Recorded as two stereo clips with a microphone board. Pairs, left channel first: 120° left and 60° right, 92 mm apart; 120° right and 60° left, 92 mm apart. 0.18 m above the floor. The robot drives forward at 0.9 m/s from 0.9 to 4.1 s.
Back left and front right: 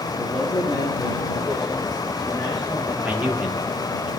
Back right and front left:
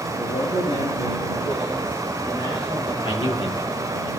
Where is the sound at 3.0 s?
135° right, 4 m; by 4.1 s 140° right, 5 m.